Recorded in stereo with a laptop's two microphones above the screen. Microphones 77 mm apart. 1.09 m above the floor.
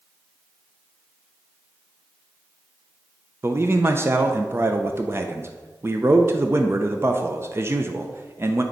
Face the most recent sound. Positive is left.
turn(degrees=-35)  # may be behind; listen again after turning